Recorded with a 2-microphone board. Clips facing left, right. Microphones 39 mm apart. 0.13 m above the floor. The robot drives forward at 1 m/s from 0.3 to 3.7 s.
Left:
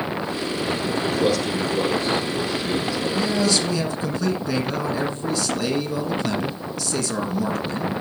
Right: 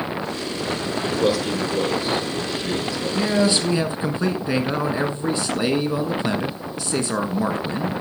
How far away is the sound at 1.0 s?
About 2.5 m.